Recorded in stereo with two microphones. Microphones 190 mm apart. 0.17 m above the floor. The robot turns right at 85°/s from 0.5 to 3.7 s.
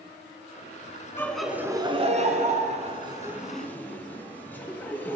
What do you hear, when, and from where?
1.2 s laughter: 15° left (ahead or behind), 1.3 m; by 5.2 s 10° left (ahead or behind), 1.3 m